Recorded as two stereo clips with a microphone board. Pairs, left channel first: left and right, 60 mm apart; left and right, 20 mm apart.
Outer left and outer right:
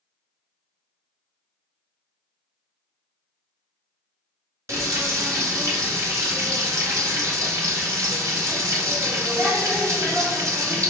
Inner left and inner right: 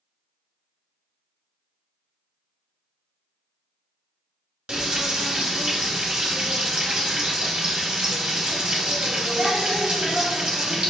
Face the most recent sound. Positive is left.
turn(degrees=-55)  # may be behind; listen again after turning